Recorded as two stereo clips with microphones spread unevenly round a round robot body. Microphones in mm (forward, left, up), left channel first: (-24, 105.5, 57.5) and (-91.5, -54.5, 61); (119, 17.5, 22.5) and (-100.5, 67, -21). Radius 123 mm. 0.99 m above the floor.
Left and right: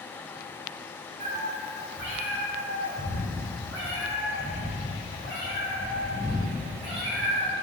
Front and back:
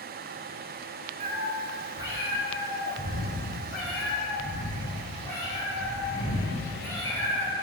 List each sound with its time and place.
1.2 s a cat meowing: 135° right, 0.7 m; by 7.5 s 90° right, 4 m